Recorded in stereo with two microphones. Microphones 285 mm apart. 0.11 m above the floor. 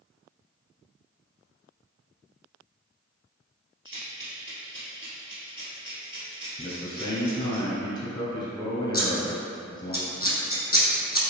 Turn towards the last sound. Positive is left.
turn(degrees=30)  # may be behind; listen again after turning